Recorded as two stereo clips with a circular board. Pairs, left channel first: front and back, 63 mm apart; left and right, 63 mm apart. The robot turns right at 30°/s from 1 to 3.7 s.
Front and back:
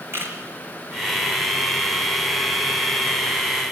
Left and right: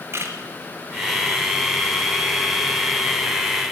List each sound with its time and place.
0.1 s a camera shutter: 135° right, 3.5 m